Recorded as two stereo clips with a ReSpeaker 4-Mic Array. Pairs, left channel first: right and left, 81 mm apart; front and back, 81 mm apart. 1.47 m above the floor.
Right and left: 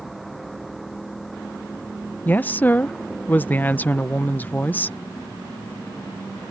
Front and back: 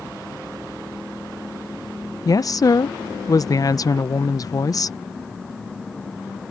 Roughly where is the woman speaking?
Ahead right.